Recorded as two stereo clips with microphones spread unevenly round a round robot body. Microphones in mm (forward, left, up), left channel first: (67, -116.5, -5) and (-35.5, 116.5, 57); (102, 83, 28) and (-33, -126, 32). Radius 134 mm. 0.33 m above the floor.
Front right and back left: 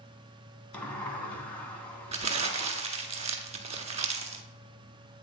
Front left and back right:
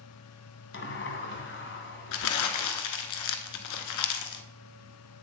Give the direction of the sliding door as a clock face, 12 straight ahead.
11 o'clock.